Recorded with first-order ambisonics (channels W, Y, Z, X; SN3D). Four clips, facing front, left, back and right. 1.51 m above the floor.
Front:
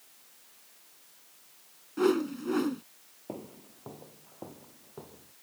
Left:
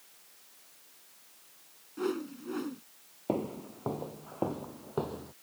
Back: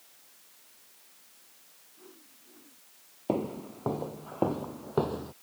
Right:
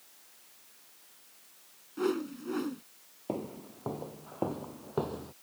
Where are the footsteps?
155° left; by 5.3 s 170° right.